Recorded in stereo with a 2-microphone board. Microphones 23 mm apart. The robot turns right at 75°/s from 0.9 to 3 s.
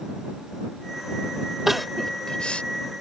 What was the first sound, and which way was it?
Crying, 10° right (ahead or behind).